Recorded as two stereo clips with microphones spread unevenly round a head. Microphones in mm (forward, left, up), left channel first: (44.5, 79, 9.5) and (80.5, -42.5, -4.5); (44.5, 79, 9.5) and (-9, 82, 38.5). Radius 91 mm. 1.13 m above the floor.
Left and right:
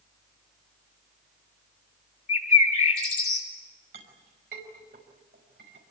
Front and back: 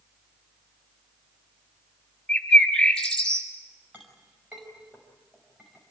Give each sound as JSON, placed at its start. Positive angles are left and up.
{"t": 2.3, "sound": "a bird", "azimuth_deg": 80, "distance_m": 7.0}
{"t": 3.9, "sound": "a clink", "azimuth_deg": -105, "distance_m": 5.0}